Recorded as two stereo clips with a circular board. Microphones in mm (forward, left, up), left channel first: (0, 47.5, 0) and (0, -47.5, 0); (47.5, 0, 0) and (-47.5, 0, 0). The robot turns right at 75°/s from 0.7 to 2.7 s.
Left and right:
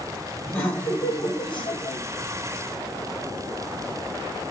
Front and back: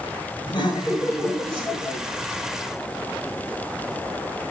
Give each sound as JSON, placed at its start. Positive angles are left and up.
{"t": 0.5, "sound": "laughter", "azimuth_deg": 25, "distance_m": 2.0}